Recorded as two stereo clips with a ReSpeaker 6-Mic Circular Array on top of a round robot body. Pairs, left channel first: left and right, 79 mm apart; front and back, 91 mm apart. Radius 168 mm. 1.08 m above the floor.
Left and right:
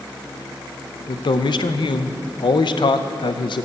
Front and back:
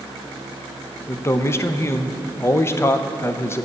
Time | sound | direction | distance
1.1 | a man speaking | 65° left | 0.5 m